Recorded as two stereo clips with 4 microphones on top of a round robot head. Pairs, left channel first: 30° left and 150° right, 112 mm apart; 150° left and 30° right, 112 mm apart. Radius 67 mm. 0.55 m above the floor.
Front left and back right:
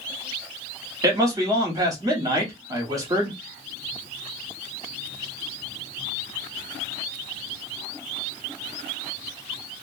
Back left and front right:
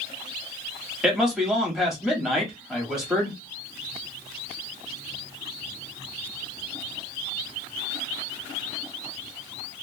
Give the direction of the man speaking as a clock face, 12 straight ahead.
4 o'clock.